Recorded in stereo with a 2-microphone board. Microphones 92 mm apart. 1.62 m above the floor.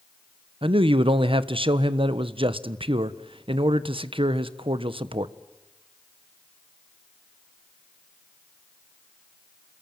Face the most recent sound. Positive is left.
turn(degrees=-80)